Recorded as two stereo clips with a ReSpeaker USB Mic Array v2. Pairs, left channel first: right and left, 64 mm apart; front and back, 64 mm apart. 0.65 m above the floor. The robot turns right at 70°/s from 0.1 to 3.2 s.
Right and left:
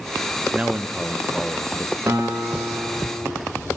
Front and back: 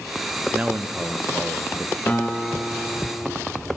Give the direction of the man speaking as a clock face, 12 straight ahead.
8 o'clock.